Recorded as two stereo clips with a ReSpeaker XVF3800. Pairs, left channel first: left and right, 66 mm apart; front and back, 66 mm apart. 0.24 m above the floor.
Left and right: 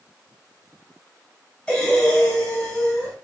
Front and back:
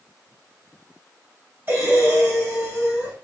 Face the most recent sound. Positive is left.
turn(degrees=160)